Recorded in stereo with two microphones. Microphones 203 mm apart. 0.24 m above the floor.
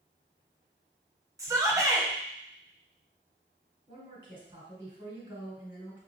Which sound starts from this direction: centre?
A shout, at 1.4 s.